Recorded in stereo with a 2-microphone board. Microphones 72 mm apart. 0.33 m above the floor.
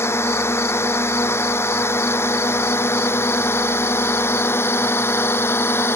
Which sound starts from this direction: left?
A drone, at 0.0 s.